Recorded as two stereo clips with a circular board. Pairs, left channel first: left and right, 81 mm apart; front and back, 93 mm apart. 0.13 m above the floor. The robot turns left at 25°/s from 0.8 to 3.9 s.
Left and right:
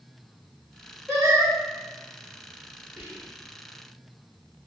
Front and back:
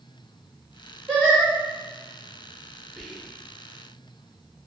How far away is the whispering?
About 1.1 m.